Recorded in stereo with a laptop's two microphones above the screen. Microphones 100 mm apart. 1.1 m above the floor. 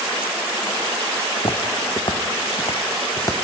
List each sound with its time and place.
1.4 s footsteps: 60° left (ahead or behind), 3.5 m; by 3.4 s 30° left (ahead or behind), 3.5 m